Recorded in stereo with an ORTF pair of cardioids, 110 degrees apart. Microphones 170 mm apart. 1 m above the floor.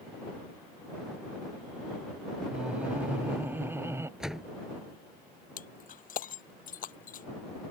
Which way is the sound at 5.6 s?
50° left.